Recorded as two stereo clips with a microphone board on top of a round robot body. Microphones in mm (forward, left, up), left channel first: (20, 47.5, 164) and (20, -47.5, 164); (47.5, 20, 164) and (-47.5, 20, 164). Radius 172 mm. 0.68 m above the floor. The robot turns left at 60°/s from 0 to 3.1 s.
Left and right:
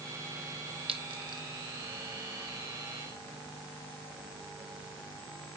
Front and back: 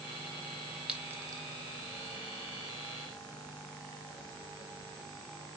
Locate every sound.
0.9 s a clink: 100° right, 1.0 m; by 1.4 s 130° right, 1.0 m